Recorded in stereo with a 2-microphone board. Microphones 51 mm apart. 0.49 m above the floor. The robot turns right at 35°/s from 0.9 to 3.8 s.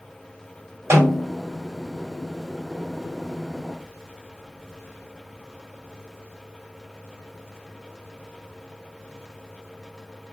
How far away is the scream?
I don't hear a scream.